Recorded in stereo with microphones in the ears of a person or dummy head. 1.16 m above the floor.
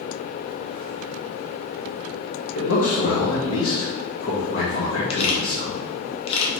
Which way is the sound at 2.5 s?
65° left (ahead or behind).